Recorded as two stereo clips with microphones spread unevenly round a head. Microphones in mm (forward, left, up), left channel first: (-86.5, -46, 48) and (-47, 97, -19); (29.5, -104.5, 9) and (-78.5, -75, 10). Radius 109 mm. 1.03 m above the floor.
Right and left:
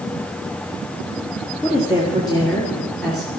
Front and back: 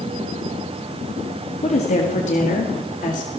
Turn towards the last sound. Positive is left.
turn(degrees=-10)